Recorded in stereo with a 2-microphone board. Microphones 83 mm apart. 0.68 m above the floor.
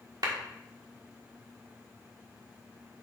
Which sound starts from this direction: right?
A clap, at 0.2 s.